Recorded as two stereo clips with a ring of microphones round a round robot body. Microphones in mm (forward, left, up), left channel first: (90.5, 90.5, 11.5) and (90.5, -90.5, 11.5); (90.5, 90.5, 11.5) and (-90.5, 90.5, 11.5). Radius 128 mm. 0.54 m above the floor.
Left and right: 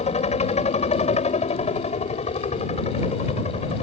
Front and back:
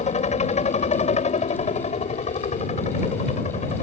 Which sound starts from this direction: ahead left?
A helicopter, at 0.0 s.